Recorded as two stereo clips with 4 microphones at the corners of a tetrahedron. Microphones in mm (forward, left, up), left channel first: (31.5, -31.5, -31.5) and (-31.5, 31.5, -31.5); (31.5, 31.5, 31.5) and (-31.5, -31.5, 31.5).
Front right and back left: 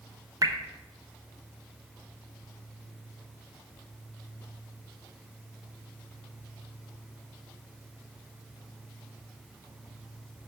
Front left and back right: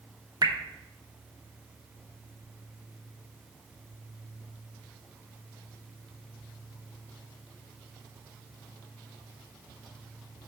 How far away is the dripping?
About 0.9 m.